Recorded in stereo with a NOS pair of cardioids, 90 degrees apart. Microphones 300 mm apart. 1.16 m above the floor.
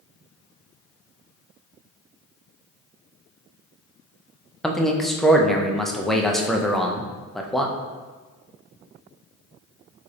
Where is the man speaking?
Straight ahead, 0.6 m.